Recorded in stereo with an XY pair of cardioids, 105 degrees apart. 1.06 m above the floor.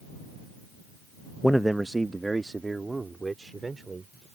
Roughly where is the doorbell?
No doorbell in this recording.